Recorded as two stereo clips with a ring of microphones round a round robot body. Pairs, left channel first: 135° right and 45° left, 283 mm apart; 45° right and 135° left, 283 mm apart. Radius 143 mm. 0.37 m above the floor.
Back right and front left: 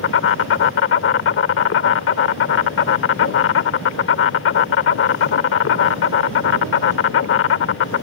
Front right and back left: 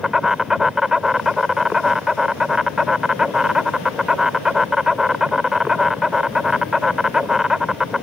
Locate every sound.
0.0 s an insect: 135° right